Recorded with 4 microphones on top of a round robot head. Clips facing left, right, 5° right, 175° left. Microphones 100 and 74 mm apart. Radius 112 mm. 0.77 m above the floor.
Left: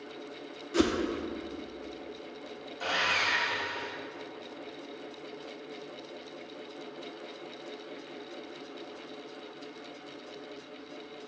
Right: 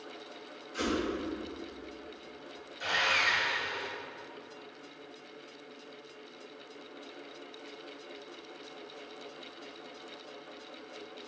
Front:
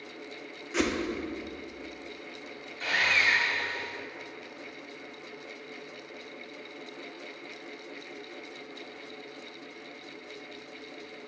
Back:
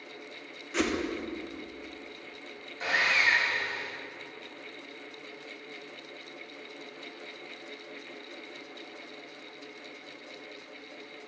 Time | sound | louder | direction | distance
0.7 | a whoosh | left 6 dB, front 1 dB | 80° left | 0.5 m
2.8 | sawing | even, even | 110° left | 1.6 m